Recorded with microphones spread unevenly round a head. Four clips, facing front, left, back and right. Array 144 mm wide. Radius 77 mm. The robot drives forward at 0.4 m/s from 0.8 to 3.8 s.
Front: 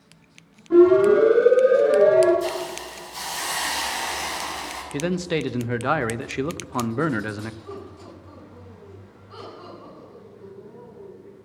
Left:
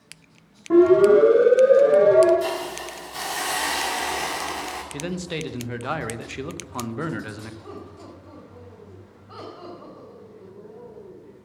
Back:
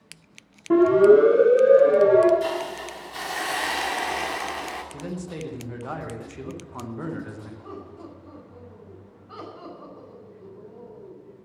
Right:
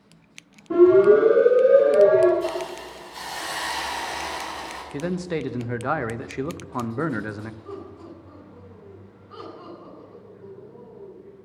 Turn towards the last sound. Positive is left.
turn(degrees=125)